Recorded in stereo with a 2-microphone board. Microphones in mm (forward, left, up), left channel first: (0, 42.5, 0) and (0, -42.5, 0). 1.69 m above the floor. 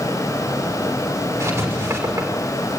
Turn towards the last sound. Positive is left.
turn(degrees=-30)  # may be behind; listen again after turning